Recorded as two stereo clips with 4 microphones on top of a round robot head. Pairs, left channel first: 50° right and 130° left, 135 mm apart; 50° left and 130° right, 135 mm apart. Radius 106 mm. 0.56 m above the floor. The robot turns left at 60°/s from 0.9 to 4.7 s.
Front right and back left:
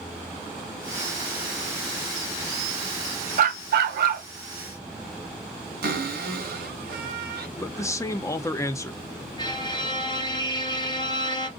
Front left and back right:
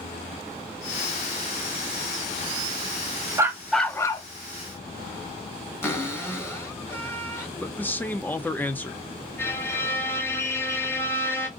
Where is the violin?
15° right, 1.2 m.